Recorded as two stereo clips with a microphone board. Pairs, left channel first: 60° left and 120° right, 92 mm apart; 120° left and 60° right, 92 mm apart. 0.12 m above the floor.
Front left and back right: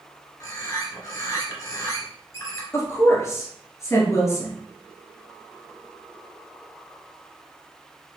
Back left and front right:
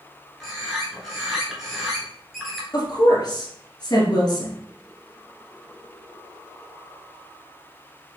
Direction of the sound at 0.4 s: 25° left.